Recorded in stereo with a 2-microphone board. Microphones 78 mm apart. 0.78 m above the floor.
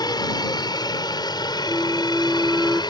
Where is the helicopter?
60° left (ahead or behind); by 2.9 s 65° left (ahead or behind).